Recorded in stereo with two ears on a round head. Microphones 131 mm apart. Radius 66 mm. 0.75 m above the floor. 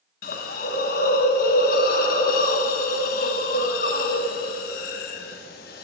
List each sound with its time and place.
0.2 s a hiss: 65° left (ahead or behind), 1.0 m